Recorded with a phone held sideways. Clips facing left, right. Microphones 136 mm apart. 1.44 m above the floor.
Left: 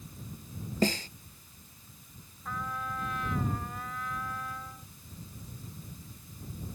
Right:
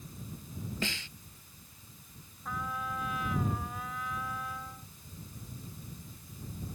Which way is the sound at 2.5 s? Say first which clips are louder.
Even; 5° right (ahead or behind).